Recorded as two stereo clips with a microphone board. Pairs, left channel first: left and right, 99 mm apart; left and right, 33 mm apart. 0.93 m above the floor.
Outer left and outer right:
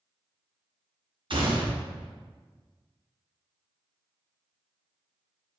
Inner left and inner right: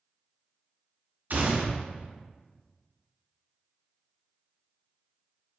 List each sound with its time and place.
1.3 s a gunshot: 60° right (ahead or behind), 0.8 m